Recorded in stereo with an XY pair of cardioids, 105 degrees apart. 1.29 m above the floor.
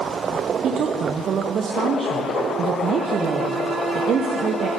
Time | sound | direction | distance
0.6 | a woman speaking | 55° right | 0.5 m